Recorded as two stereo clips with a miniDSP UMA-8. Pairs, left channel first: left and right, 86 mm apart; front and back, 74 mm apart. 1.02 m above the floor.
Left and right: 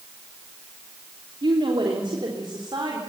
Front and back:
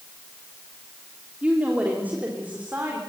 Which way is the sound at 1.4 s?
110° right.